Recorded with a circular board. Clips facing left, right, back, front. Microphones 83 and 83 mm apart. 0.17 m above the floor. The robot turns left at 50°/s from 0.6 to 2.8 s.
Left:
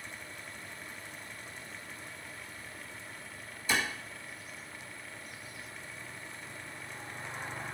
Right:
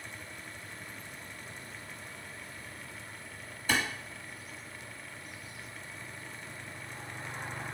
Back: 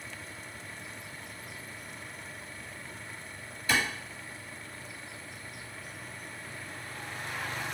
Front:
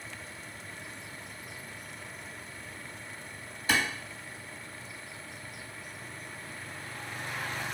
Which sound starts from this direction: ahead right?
A clap, at 3.7 s.